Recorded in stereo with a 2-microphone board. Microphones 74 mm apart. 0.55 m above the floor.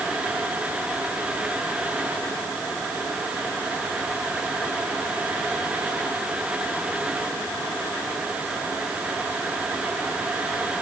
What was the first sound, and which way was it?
Only background noise.